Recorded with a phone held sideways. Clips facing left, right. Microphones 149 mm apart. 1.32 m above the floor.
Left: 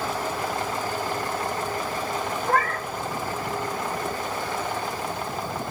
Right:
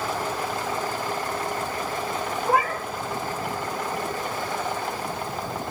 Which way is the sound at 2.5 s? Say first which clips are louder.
Right 2 dB; 15° right (ahead or behind).